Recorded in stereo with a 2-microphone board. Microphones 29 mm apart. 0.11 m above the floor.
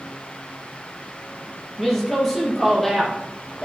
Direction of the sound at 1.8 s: Centre (ahead or behind).